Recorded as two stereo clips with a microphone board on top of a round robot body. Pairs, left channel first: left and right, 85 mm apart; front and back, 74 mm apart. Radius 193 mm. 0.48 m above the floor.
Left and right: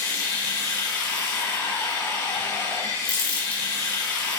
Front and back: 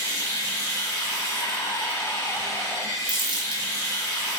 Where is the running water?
30° left, 1.5 m.